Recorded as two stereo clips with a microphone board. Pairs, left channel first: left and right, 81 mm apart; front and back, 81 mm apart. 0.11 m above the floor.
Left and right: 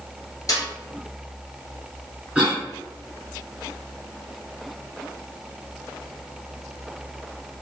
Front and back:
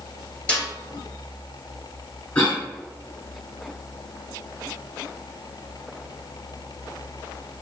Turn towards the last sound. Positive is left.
turn(degrees=-35)